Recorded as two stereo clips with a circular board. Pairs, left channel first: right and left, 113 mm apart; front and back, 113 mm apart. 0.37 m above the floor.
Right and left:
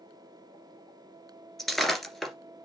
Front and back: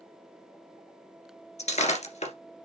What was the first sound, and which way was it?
Breaking glass, 5° right.